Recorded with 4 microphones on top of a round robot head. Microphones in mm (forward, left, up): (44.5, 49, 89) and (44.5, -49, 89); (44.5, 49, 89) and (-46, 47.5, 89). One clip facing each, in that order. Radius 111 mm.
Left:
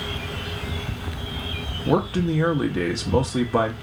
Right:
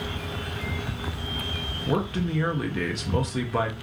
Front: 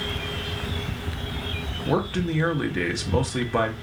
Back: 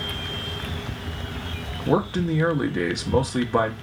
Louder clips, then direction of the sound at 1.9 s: Left 5 dB, back 3 dB; 120° left.